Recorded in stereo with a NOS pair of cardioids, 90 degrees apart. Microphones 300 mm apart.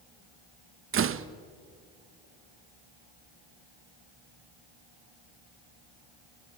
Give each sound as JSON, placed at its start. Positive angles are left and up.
{"t": 0.9, "sound": "a door slam", "azimuth_deg": -45, "distance_m": 1.1}